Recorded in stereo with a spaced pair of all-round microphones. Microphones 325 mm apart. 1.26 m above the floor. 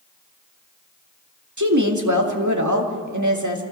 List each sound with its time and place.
1.6 s a woman speaking: 60° right (ahead or behind), 2 m